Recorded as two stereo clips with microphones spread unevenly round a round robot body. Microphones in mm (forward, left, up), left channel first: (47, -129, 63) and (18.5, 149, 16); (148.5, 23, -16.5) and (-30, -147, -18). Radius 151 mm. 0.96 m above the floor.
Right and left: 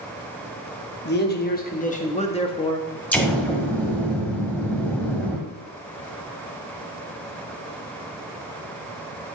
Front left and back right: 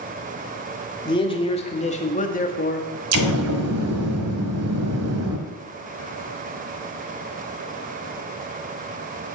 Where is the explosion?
165° right, 1.5 m.